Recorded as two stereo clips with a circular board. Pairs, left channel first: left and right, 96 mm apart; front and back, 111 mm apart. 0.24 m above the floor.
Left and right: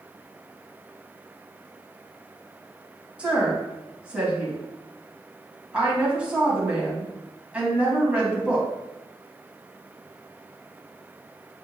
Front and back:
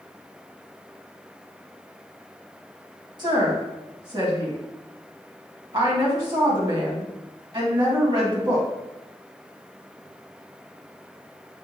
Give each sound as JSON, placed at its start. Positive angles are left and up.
{"t": 3.2, "sound": "a woman speaking", "azimuth_deg": -165, "distance_m": 1.8}